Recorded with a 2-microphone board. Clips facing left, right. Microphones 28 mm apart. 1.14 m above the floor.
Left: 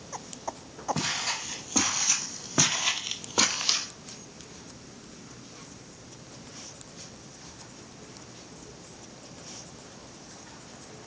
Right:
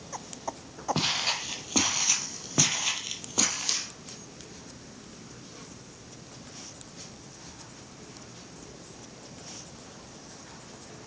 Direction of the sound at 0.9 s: 35° right (ahead or behind).